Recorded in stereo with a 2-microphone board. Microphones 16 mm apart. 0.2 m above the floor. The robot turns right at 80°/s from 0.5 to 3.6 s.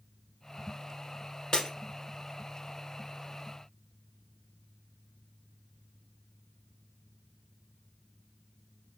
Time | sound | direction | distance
1.5 | breaking glass | 55° left (ahead or behind) | 1.4 m